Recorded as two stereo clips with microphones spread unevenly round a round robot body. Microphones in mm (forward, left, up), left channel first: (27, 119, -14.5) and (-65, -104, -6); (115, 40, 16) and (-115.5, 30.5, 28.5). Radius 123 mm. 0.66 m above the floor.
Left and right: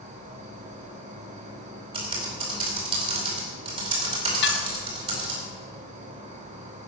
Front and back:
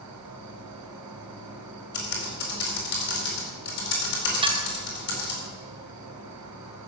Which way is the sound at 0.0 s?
175° right.